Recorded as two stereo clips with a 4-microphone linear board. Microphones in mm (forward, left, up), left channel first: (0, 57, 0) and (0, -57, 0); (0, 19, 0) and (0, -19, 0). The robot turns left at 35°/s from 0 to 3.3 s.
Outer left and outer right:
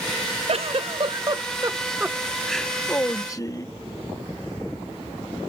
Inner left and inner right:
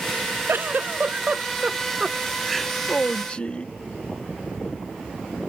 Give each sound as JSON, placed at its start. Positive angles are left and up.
{"t": 0.5, "sound": "a giggle", "azimuth_deg": -110}